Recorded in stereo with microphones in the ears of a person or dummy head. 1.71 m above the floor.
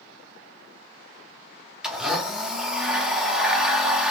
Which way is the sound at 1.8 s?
Centre (ahead or behind).